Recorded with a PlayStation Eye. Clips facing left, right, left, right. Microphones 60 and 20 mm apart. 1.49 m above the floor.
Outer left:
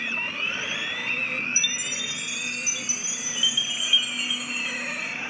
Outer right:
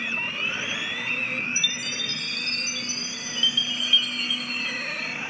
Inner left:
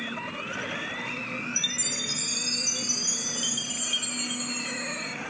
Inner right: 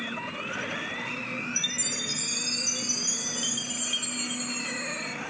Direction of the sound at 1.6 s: 10° left (ahead or behind).